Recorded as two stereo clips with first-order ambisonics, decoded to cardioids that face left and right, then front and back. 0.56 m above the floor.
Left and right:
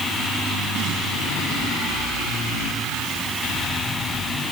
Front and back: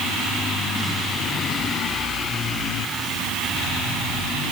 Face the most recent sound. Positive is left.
No sound to turn to.